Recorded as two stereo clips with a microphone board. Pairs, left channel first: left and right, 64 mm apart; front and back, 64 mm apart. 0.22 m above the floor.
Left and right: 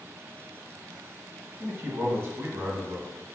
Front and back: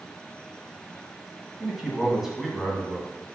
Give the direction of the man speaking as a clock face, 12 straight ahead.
3 o'clock.